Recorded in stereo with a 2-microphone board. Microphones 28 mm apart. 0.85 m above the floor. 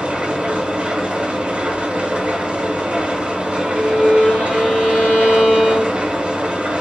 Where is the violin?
65° left (ahead or behind), 2.0 m.